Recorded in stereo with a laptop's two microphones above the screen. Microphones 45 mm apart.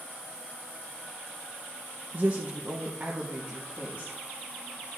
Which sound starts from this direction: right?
A woman speaking, at 2.1 s.